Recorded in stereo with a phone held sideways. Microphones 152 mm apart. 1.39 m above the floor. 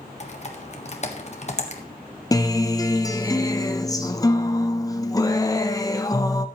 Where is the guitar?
20° left (ahead or behind), 1.0 m.